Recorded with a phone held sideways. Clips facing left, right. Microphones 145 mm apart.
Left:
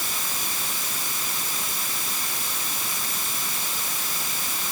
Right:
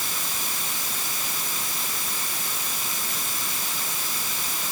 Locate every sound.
Only background noise.